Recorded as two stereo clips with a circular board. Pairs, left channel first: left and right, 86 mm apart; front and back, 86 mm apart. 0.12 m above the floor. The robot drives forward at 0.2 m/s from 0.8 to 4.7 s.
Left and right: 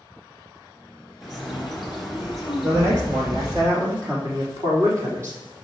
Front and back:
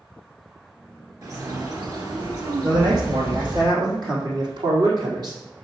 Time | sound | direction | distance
1.2 | a bird | straight behind | 2 m
2.6 | a man speaking | 145° right | 3.5 m